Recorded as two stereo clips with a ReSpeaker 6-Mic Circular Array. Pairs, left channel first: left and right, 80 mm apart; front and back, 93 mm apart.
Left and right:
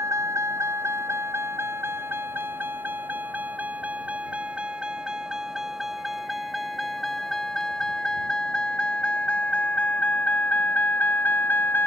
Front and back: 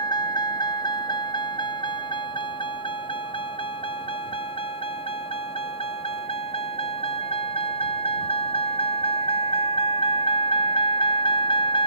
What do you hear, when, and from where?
0.0 s a vehicle: 40° right; by 11.9 s 25° left